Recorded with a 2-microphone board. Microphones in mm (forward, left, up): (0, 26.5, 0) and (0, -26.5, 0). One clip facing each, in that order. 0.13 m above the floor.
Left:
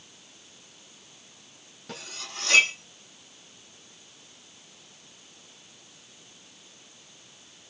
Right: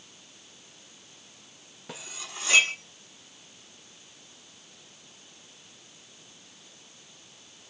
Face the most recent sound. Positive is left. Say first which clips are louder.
# left 1 dB
turn(degrees=-15)  # may be behind; listen again after turning